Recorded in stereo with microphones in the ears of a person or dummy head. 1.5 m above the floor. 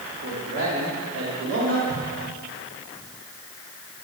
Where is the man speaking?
70° right (ahead or behind), 4 m.